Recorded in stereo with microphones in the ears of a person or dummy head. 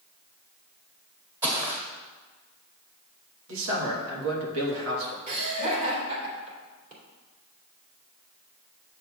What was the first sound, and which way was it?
Footsteps, 10° right (ahead or behind).